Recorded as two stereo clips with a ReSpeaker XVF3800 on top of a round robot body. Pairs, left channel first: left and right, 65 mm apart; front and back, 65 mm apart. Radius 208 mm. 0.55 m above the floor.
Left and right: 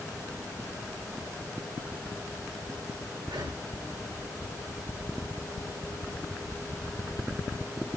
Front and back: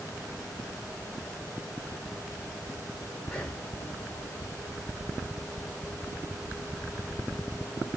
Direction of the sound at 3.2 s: 75° right.